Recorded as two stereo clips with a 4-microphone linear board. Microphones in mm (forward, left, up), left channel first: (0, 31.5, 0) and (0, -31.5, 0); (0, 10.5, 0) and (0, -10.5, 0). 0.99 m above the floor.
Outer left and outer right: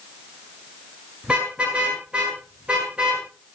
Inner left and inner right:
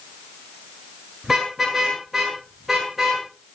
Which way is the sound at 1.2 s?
15° right (ahead or behind).